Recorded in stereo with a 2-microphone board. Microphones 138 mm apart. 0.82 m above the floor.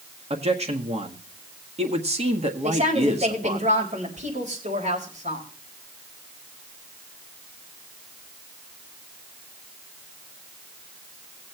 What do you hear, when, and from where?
0.3 s a man speaking: 45° right (ahead or behind), 1.5 m
2.6 s a woman speaking: 60° right (ahead or behind), 4 m